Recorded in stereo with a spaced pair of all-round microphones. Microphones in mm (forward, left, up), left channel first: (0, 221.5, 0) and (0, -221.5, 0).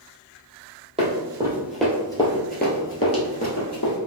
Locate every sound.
1.0 s running footsteps: 15° right (ahead or behind), 1.8 m; by 4.0 s 40° left (ahead or behind), 1.7 m